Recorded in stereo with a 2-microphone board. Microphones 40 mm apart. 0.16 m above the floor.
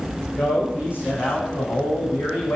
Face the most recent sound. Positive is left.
turn(degrees=60)  # may be behind; listen again after turning